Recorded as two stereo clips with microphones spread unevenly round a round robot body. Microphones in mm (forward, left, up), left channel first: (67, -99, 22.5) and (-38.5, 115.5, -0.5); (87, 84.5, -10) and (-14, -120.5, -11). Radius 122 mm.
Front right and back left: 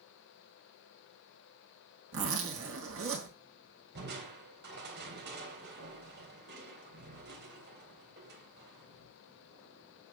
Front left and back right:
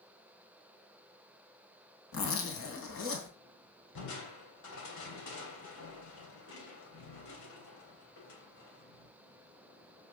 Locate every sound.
2.1 s a zipper: 80° left, 3 m
4.0 s crushing: 70° left, 3 m